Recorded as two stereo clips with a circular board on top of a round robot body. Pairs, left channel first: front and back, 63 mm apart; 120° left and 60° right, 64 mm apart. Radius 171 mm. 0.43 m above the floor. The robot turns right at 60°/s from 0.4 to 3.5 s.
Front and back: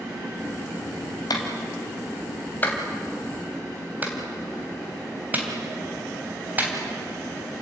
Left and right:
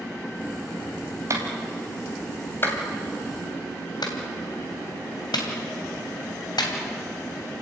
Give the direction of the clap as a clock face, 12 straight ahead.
1 o'clock.